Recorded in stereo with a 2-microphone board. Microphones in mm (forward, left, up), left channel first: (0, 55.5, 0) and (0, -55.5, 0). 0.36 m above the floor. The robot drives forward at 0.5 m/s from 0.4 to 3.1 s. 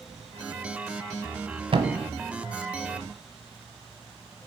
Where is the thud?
55° right (ahead or behind), 0.9 m; by 2.0 s 60° right (ahead or behind), 0.9 m.